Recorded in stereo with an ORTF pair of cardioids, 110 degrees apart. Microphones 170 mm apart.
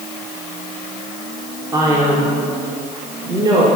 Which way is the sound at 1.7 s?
20° right.